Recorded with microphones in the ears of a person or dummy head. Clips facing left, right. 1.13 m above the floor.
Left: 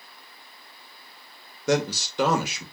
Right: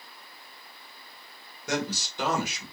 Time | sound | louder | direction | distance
1.7 | a man speaking | left 7 dB | 60° left (ahead or behind) | 0.8 m